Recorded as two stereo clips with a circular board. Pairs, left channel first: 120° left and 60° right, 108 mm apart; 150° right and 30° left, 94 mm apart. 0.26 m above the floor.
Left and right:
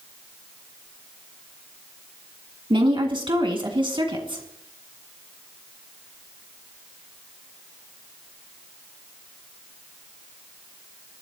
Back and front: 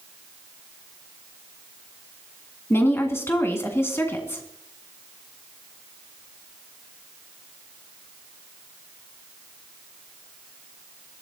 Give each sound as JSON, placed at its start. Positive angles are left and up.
{"t": 2.7, "sound": "a woman speaking", "azimuth_deg": -90, "distance_m": 2.5}